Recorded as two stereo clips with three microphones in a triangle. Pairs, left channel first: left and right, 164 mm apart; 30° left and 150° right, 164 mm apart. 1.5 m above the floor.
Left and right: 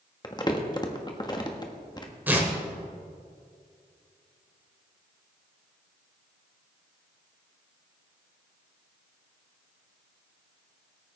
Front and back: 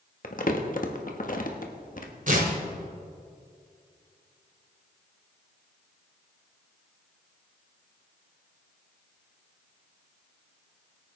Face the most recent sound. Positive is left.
turn(degrees=-165)